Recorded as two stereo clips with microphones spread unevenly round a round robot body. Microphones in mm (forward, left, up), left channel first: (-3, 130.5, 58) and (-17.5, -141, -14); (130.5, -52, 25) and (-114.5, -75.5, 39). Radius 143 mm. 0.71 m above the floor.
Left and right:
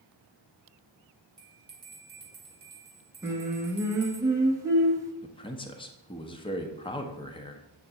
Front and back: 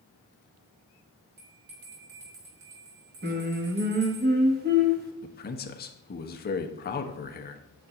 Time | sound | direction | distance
1.4 | a bell | 165° right | 2.5 m
3.2 | singing | 145° right | 1.3 m
5.2 | a man speaking | 5° left | 0.9 m